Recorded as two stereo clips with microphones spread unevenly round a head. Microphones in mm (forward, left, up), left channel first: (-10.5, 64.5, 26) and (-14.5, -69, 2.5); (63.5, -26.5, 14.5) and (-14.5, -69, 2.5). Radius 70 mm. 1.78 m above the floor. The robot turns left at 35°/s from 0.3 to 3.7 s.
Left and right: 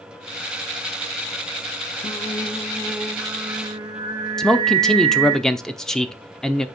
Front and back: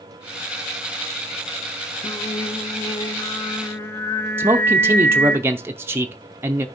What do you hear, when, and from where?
2.0 s singing: 35° left, 0.7 m; by 5.4 s 20° right, 0.7 m
4.4 s a man speaking: 150° left, 0.6 m